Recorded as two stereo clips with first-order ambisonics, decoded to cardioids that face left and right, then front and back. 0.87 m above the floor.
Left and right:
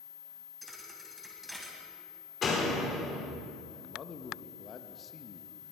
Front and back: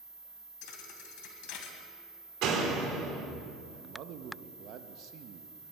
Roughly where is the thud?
Ahead.